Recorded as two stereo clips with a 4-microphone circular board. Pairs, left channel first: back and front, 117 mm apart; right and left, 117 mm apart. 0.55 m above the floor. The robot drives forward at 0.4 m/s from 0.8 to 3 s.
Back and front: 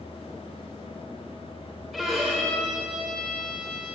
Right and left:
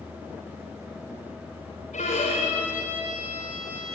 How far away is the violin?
About 8 m.